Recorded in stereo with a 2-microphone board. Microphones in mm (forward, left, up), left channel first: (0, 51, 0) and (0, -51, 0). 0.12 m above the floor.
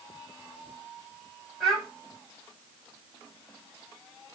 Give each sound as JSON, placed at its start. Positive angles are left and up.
{"t": 1.6, "sound": "a child speaking", "side_deg": 0, "distance_m": 2.5}